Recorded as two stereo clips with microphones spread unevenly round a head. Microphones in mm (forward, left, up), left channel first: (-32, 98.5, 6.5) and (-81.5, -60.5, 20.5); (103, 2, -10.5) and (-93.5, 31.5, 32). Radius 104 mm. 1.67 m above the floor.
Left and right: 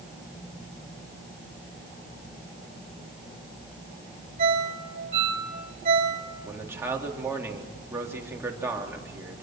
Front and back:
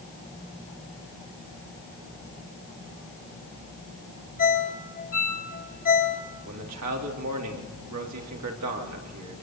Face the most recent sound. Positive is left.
turn(degrees=175)